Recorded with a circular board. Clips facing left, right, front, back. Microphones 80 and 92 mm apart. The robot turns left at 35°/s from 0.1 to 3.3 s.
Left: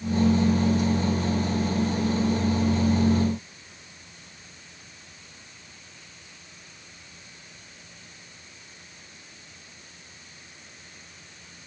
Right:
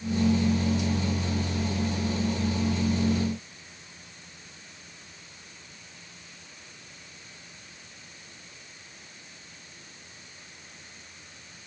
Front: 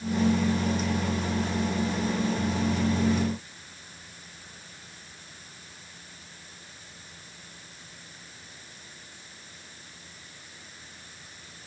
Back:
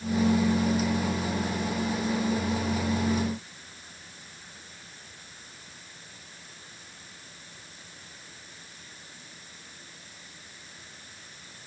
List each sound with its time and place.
Only background noise.